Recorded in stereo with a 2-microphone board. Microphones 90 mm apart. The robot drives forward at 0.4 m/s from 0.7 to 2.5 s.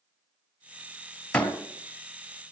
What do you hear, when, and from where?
1.3 s a door slam: 15° left (ahead or behind), 1.7 m